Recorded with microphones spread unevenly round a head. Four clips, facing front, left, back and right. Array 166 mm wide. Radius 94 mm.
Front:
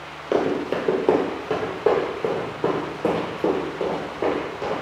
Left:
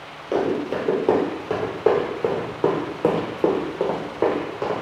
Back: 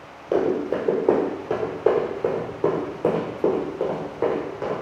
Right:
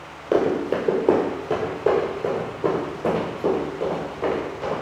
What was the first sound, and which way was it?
Running footsteps, 115° right.